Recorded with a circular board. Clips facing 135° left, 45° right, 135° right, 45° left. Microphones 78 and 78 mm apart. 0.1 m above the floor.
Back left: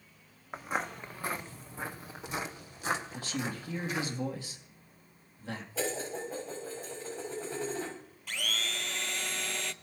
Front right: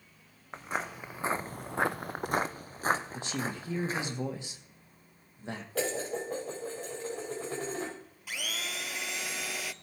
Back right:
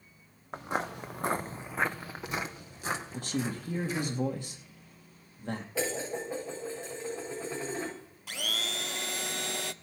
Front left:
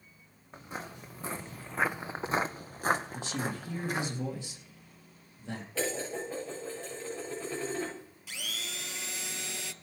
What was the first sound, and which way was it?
Footsteps, 140° right.